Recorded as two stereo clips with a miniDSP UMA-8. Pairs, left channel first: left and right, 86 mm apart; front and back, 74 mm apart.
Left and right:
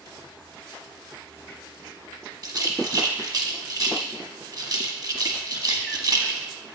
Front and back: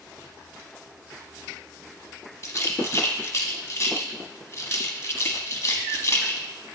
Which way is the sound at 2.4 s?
55° right.